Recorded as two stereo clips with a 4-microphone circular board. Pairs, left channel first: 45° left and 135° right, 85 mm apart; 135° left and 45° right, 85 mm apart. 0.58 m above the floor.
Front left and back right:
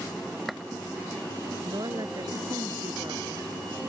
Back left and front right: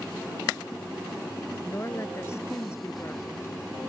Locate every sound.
1.6 s a woman speaking: 170° right